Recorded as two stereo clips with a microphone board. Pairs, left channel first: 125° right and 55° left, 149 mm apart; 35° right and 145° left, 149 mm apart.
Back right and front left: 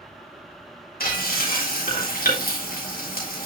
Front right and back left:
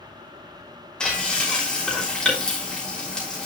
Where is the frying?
120° right, 3.5 m.